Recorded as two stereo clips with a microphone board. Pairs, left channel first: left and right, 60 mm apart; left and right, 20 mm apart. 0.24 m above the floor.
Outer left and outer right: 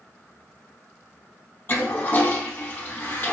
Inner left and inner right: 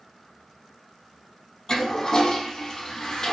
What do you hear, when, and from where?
1.7 s a toilet flushing: 30° left (ahead or behind), 0.5 m